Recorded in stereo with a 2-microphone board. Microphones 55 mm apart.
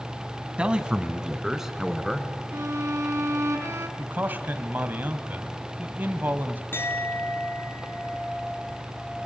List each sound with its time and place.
0.6 s a man speaking: 20° right (ahead or behind), 2 m; by 2.4 s 5° right (ahead or behind), 3.5 m
2.5 s a violin: 60° right (ahead or behind), 3 m
4.0 s a man speaking: 35° right (ahead or behind), 1.5 m
6.7 s a clink: 40° left (ahead or behind), 3 m